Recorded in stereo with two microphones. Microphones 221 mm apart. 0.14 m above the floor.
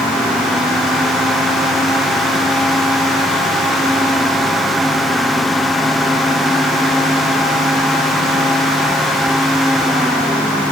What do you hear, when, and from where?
Only background noise.